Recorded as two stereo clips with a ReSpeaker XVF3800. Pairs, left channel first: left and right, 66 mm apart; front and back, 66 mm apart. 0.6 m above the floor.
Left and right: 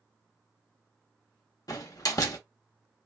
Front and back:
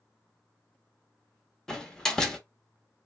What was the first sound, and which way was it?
A door slam, 80° left.